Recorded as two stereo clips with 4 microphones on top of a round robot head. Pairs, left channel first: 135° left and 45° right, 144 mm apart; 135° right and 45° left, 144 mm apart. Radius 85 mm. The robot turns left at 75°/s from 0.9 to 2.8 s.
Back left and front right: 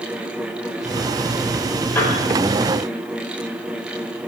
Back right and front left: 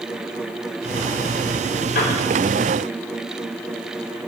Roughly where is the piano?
Behind right.